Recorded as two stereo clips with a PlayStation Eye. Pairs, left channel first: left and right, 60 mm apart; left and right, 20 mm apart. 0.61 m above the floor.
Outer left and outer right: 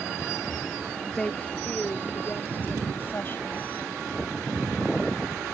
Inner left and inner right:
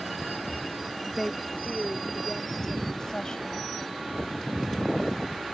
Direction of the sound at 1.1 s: 5° left (ahead or behind).